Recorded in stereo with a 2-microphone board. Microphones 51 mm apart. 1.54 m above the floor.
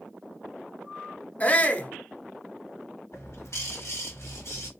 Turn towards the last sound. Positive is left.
turn(degrees=60)  # may be behind; listen again after turning